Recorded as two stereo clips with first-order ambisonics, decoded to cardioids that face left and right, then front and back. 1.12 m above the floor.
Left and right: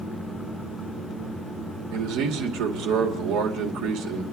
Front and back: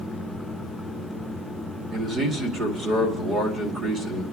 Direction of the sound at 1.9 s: 110° right.